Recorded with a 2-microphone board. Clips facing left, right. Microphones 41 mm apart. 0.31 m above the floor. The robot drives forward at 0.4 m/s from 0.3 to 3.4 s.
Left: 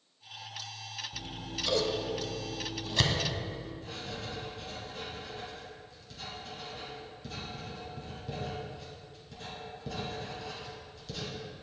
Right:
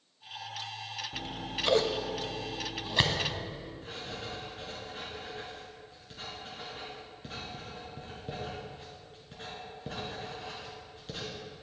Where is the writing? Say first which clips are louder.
Even; 35° right (ahead or behind), 2.5 m.